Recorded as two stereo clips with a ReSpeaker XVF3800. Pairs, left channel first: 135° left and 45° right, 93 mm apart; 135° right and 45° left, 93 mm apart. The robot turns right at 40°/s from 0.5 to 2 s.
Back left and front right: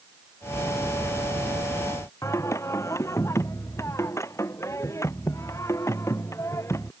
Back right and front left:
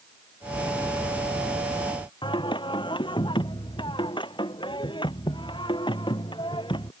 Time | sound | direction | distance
2.2 | singing | 165° right | ?